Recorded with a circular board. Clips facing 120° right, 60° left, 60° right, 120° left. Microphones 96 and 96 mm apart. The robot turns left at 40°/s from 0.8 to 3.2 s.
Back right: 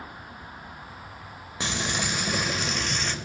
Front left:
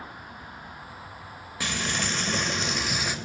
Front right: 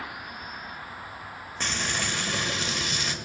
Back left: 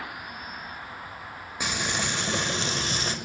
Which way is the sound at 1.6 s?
165° right.